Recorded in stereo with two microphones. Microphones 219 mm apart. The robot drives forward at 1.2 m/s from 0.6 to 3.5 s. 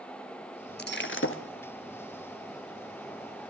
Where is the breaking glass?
50° left (ahead or behind), 1.6 m; by 1.4 s 75° left (ahead or behind), 1.3 m.